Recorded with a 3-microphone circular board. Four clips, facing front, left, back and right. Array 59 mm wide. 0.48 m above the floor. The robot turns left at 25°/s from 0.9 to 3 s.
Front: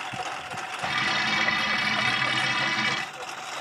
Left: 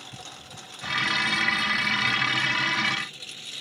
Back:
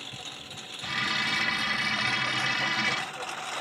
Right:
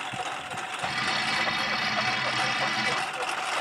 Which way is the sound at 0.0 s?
40° right.